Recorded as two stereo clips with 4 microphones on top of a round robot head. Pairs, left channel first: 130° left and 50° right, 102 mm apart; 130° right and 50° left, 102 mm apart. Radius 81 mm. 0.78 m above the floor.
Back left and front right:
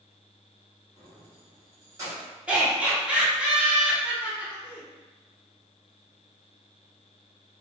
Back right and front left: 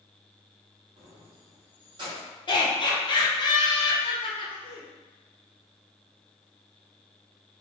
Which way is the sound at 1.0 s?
10° left.